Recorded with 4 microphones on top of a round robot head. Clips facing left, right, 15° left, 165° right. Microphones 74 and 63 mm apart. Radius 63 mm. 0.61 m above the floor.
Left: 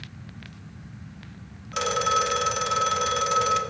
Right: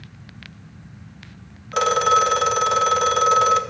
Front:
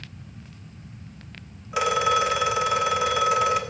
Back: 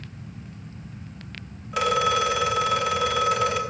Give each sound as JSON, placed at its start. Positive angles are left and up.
{"t": 1.7, "sound": "a phone ringing", "azimuth_deg": -70, "distance_m": 0.8}